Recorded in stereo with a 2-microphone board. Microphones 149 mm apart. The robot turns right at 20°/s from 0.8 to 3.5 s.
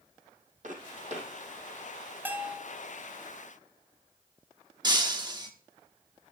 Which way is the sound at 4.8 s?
30° right (ahead or behind).